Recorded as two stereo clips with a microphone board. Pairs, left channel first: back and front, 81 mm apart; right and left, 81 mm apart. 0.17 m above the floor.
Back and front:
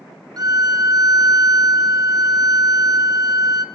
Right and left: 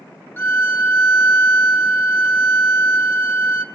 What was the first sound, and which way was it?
A violin, 30° right.